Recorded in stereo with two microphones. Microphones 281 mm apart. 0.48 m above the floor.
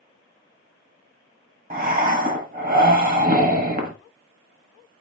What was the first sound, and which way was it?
Breathing, 30° right (ahead or behind).